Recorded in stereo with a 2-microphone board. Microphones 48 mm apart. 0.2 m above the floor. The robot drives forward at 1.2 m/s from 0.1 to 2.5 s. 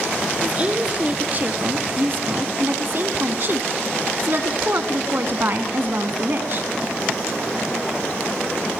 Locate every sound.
0.4 s a woman speaking: 25° right (ahead or behind), 3 m; by 6.7 s 50° right (ahead or behind), 1.7 m